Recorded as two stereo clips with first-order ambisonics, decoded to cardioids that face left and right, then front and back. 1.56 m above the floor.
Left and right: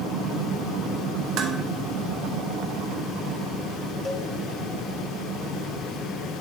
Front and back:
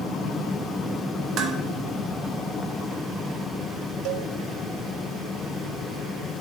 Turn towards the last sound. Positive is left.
turn(degrees=165)